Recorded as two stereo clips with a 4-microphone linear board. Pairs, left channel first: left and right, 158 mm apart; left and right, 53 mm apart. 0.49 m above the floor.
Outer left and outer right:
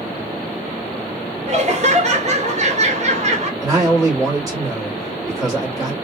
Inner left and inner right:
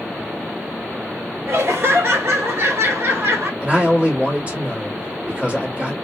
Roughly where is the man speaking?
Right.